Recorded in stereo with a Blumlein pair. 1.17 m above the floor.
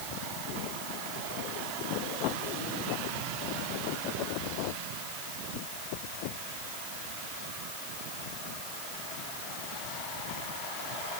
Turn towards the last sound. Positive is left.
No sound to turn to.